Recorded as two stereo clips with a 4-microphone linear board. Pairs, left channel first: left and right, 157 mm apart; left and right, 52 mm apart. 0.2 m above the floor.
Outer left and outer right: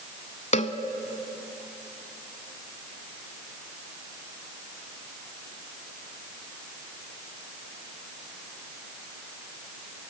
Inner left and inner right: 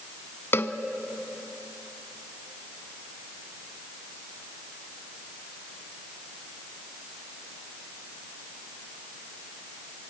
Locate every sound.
0.5 s a cowbell: 50° left (ahead or behind), 0.9 m